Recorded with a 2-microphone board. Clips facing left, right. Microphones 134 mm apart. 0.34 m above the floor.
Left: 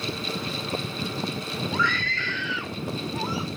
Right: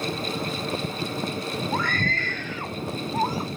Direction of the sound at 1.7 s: 45° right (ahead or behind).